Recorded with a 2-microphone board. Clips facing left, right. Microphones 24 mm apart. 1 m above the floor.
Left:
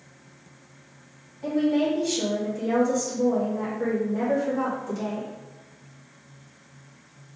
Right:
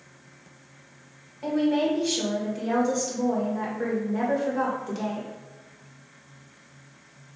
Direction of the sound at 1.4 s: 35° right (ahead or behind).